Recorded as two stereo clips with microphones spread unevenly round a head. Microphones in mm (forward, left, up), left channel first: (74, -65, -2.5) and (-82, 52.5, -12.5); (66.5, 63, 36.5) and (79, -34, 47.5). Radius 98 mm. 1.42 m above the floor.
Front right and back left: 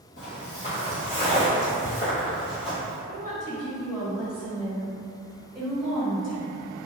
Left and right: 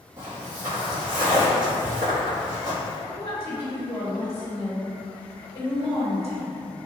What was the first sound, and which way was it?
Footsteps, 45° right.